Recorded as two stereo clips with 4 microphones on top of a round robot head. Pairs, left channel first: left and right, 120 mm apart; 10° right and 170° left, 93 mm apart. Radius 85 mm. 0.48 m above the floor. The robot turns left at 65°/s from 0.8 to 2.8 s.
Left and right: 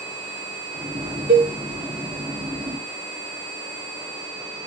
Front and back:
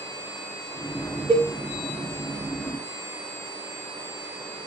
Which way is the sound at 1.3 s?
125° right.